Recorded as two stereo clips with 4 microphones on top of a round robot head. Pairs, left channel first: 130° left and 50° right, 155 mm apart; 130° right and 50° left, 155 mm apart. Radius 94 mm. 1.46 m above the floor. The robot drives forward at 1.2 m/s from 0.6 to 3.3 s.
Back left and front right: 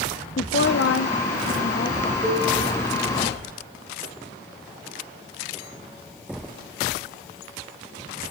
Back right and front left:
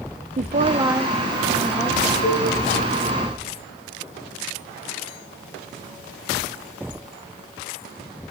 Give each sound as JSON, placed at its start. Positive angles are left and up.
{"t": 0.4, "sound": "a woman speaking", "azimuth_deg": 100, "distance_m": 0.7}
{"t": 2.2, "sound": "a cowbell", "azimuth_deg": -130, "distance_m": 6.0}